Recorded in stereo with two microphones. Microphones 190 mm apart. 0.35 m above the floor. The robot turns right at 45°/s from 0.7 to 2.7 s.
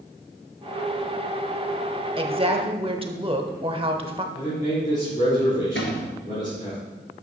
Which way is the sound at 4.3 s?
40° left (ahead or behind).